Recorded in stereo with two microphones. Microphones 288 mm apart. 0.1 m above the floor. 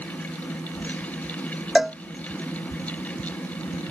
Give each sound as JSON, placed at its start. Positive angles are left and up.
{"t": 1.8, "sound": "a cowbell", "side_deg": 0}